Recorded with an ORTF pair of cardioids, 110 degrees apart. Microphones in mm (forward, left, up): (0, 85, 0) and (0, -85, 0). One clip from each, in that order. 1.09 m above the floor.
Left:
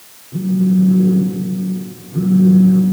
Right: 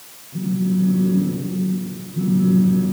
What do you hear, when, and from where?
0.3 s a phone buzzing: 60° left, 3 m